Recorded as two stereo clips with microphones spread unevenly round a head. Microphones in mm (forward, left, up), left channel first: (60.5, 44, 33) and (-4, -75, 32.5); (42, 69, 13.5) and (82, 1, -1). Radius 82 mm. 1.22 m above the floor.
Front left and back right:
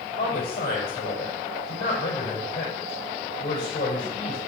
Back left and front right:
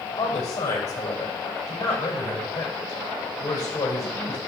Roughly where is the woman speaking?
Left.